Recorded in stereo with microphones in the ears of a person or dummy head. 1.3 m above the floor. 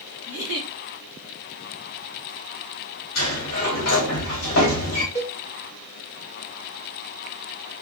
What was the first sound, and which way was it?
A giggle, 75° left (ahead or behind).